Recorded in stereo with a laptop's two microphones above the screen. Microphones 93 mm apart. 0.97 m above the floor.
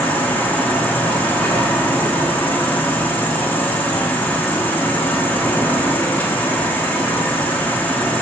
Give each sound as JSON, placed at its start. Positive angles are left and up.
{"t": 0.0, "sound": "an insect", "side_deg": 15, "distance_m": 0.7}